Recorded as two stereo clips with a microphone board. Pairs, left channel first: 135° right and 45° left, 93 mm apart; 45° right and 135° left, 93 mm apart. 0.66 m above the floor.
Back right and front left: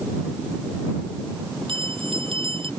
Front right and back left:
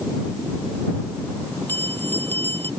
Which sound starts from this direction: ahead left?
A bell, at 1.7 s.